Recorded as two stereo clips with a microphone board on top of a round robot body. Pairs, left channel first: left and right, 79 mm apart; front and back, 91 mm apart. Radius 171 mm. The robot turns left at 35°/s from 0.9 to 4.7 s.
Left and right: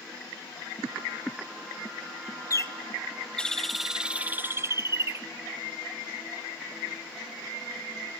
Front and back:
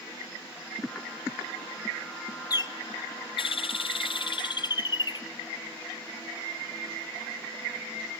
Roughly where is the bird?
Ahead left.